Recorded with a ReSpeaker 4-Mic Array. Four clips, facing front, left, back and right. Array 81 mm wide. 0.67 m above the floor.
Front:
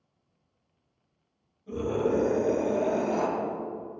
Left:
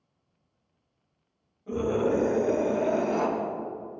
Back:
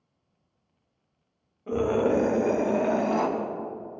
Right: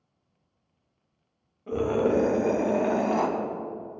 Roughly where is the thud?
No thud in this recording.